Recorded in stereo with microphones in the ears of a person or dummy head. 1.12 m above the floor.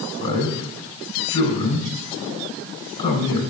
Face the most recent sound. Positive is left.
turn(degrees=30)  # may be behind; listen again after turning